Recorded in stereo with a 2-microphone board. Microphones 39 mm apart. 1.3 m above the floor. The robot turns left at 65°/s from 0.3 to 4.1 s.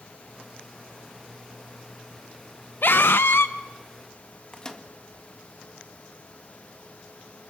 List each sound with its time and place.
2.8 s a scream: 120° left, 0.6 m; by 3.5 s 75° left, 0.6 m
4.5 s a microwave: 20° left (ahead or behind), 1.9 m